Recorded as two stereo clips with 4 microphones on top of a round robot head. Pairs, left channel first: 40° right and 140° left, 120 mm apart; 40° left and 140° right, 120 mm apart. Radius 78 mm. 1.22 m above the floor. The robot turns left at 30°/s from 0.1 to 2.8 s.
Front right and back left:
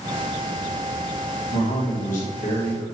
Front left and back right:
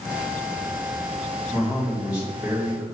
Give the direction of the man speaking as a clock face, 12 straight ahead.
1 o'clock.